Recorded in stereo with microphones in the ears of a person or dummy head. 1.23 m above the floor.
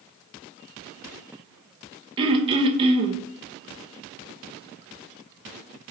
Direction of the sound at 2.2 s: 25° right (ahead or behind).